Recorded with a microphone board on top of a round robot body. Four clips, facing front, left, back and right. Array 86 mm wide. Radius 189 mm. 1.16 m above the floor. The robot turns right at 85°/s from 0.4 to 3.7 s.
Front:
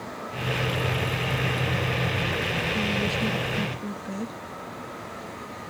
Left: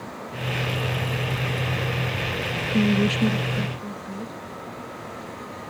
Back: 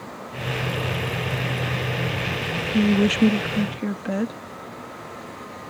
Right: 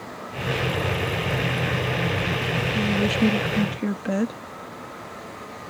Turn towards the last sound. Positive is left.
turn(degrees=-130)